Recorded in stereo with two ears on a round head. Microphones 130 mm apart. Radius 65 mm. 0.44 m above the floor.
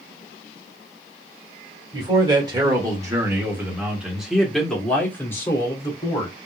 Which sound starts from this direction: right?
A man speaking, at 1.9 s.